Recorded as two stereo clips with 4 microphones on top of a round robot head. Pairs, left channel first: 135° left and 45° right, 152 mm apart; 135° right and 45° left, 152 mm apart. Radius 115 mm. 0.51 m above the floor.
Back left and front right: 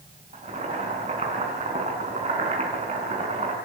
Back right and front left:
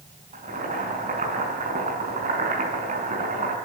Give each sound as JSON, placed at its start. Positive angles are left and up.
{"t": 0.3, "sound": "boiling", "azimuth_deg": 5, "distance_m": 5.5}